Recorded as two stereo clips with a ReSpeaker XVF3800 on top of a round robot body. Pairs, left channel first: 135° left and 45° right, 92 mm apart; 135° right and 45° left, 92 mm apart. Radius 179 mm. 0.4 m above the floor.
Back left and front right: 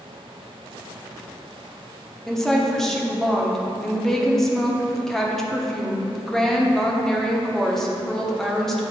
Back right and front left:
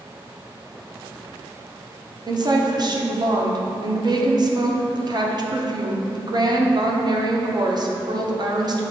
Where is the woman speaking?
50° left, 1.2 m.